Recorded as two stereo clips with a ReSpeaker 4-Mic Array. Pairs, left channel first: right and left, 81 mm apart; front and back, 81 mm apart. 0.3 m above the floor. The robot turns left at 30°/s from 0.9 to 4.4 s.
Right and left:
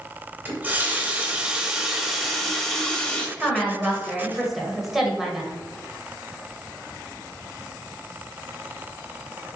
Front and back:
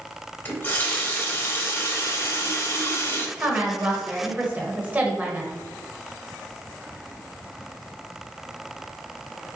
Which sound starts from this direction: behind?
A woman speaking, at 3.4 s.